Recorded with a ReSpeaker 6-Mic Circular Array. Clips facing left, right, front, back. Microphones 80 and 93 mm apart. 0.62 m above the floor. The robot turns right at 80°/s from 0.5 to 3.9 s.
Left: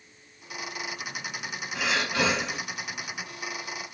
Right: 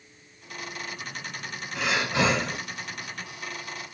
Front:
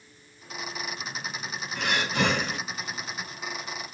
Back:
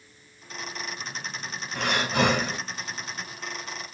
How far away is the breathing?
About 1.8 m.